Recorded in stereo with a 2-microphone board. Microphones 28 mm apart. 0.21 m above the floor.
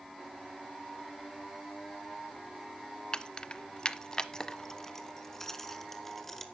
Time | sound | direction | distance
3.1 | keys jangling | 25° left (ahead or behind) | 0.8 m